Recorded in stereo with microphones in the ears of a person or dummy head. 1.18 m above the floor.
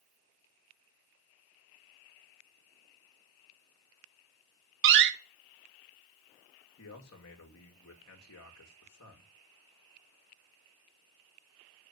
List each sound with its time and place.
4.8 s a door slam: 60° right (ahead or behind), 0.8 m
6.8 s a man speaking: 70° left (ahead or behind), 1.8 m